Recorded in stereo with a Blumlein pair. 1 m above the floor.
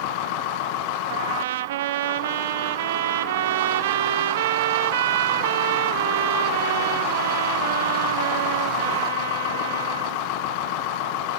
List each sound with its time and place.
1.1 s a trumpet: 55° right, 1.0 m